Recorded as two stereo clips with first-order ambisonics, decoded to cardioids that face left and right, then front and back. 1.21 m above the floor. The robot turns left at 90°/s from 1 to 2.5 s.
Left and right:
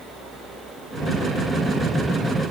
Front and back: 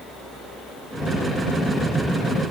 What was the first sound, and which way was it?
Only background noise.